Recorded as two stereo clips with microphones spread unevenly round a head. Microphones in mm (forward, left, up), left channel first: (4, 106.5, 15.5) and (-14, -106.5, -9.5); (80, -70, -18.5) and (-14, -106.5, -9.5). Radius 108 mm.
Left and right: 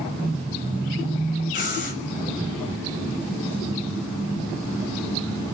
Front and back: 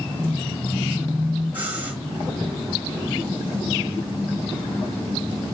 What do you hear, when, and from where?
1.5 s breathing: 140° left, 3 m